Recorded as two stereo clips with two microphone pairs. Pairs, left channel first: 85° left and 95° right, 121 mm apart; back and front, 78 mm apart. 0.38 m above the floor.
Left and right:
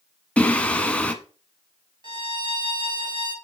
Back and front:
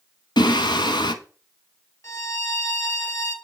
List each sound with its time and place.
0.4 s singing: 165° left, 0.7 m
2.0 s a violin: 140° right, 1.3 m